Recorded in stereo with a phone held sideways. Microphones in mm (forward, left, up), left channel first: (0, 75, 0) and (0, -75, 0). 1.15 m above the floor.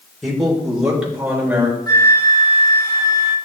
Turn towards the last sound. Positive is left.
turn(degrees=25)  # may be behind; listen again after turning